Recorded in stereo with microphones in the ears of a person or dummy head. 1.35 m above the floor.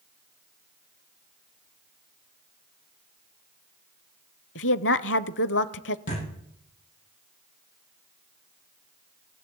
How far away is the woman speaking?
About 0.5 m.